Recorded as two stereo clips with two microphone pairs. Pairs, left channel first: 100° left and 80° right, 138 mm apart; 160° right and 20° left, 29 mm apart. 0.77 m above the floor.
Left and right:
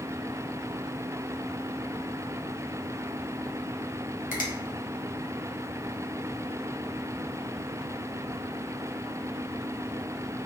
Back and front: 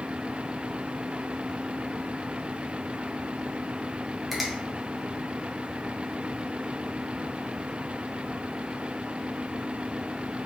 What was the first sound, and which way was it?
A finger snap, 105° left.